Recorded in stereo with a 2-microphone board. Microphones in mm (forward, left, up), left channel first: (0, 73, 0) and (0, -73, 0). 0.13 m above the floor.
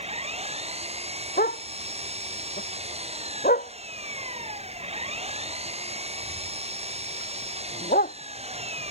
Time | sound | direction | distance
0.0 | an engine running | 45° right (ahead or behind) | ?
1.4 | a dog barking | 85° left | ?